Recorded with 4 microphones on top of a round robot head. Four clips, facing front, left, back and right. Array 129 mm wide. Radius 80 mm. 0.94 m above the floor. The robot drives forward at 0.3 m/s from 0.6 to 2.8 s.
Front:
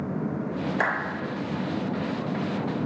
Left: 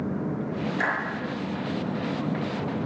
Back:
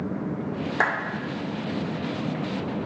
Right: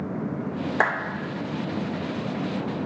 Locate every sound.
0.8 s a clap: 120° right, 2 m; by 1.0 s 125° right, 2 m